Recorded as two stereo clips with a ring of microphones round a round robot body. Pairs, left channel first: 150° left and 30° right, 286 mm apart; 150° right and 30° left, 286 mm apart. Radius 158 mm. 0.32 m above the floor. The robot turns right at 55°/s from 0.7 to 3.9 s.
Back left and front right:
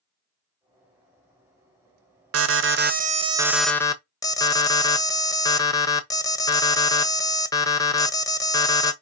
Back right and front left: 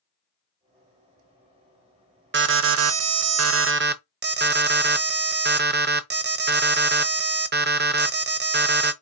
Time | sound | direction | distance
2.3 | an alarm | 10° right | 1.0 m